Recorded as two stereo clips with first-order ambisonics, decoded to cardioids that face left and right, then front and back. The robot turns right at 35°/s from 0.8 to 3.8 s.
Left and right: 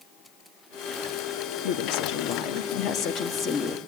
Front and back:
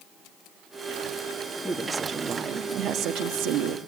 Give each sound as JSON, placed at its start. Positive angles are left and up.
{"t": 1.6, "sound": "a woman speaking", "azimuth_deg": 90, "distance_m": 1.7}